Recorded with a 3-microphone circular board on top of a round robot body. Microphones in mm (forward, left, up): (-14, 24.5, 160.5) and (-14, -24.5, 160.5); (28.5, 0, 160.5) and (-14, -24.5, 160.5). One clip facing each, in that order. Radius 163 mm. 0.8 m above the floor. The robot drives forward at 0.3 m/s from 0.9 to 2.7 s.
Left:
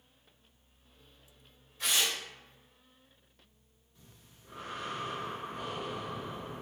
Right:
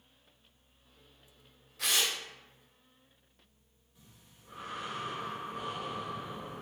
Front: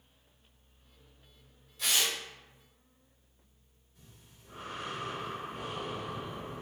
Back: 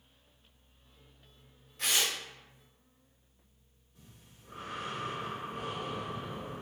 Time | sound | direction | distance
1.8 | tearing paper | 110° right | 0.9 m
4.0 | breathing | 170° right | 1.2 m